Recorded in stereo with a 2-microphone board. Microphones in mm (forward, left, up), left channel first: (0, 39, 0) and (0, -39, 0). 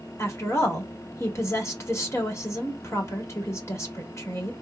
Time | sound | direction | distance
0.2 | a woman speaking | 35° left (ahead or behind) | 1.6 m